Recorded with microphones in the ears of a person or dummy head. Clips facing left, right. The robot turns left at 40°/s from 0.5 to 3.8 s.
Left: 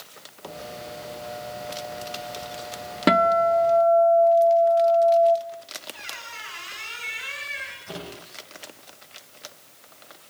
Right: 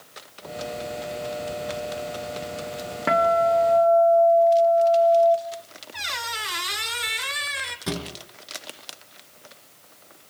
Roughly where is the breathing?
No breathing in this recording.